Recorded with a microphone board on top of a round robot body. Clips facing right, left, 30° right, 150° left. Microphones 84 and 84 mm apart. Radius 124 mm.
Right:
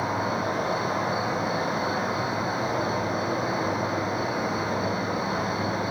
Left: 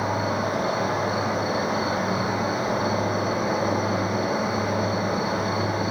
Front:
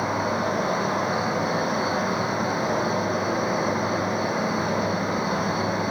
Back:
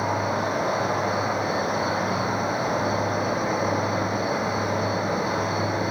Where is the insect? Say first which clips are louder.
Left 2 dB, even; 60° left, 4.5 m.